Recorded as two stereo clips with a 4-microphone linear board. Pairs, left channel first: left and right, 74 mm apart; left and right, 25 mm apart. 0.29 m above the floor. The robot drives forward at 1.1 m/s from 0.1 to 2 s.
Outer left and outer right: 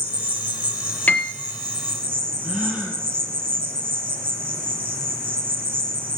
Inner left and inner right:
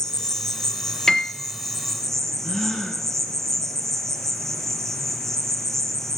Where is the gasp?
10° right (ahead or behind), 6 m.